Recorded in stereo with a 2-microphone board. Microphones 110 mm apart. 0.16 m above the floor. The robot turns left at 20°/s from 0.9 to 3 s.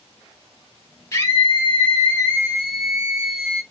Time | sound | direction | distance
1.1 | a scream | 30° left | 3 m